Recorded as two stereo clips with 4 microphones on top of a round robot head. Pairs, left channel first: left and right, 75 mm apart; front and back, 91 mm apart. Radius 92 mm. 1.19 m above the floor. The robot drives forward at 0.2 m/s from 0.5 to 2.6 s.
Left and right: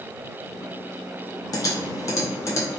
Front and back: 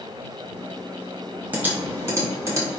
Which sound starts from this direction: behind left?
Typing on a keyboard, at 1.5 s.